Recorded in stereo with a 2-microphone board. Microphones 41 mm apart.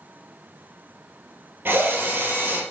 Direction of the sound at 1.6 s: 55° right (ahead or behind).